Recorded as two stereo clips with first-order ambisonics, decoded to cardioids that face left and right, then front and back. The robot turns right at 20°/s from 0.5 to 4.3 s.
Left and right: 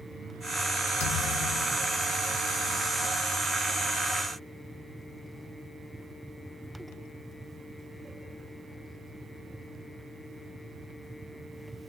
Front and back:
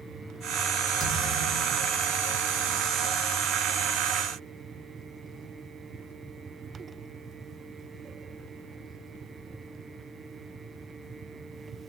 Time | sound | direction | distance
1.0 | a thud | 75° left | 3 m